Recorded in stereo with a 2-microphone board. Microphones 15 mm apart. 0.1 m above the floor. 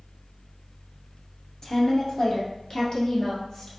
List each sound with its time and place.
1.6 s a woman speaking: 45° left (ahead or behind), 1.4 m; by 3.7 s 55° left (ahead or behind), 2 m